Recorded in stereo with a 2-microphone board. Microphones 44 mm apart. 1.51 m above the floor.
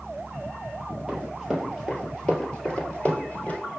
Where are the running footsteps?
10° right (ahead or behind), 1.8 m; by 3.6 s 35° left (ahead or behind), 1.8 m.